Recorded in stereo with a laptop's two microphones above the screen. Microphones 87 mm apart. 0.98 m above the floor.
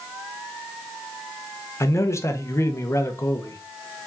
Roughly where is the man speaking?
Left.